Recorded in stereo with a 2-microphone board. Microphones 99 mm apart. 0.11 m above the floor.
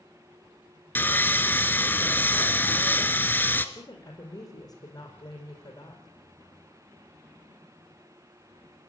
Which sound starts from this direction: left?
A woman speaking, at 3.8 s.